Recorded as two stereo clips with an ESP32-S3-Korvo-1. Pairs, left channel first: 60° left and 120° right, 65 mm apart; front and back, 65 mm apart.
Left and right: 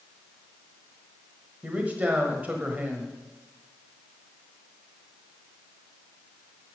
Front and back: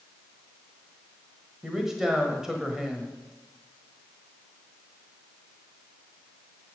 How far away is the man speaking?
About 1.3 m.